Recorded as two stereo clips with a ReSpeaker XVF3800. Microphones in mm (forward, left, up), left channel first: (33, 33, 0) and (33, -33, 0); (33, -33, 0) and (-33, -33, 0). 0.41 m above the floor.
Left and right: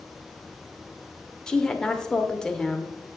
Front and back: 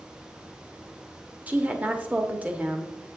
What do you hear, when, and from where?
1.5 s a woman speaking: 150° left, 0.8 m